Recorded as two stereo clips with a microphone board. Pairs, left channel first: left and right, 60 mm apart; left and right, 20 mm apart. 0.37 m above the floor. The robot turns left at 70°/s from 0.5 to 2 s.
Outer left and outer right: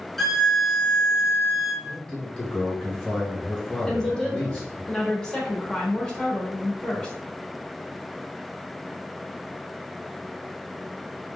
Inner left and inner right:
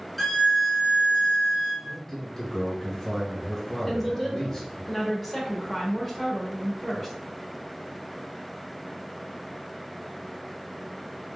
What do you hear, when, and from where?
0.2 s a violin: straight behind, 1.0 m; by 1.7 s 90° left, 1.0 m
1.8 s a man speaking: 20° left (ahead or behind), 1.3 m; by 4.9 s 15° left (ahead or behind), 1.3 m
3.9 s a woman speaking: 10° left (ahead or behind), 0.8 m